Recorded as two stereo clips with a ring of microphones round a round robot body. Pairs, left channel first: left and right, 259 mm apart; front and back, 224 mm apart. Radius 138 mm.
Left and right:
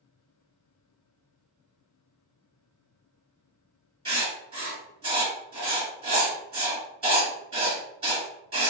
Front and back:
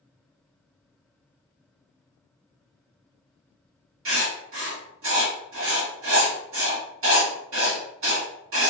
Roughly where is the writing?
Behind right.